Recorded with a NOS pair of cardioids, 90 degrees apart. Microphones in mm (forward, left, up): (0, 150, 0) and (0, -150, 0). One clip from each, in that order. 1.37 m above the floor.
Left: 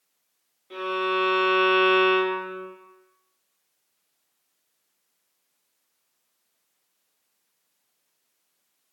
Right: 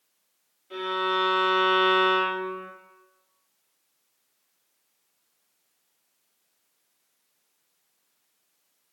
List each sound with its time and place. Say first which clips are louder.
0.7 s a violin: left 1 dB; 25° left, 1.0 m